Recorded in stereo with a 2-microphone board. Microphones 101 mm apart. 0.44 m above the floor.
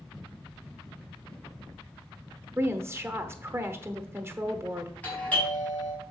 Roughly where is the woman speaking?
Right.